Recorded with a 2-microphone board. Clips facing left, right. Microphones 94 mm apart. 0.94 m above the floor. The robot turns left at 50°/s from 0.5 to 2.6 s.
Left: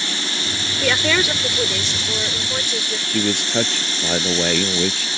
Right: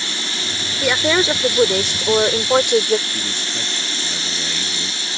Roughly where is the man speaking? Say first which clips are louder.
Left 7 dB; left.